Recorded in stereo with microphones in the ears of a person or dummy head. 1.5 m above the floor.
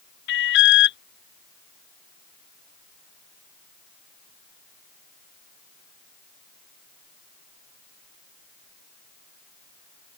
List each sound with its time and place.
0.3 s an alarm: 60° left (ahead or behind)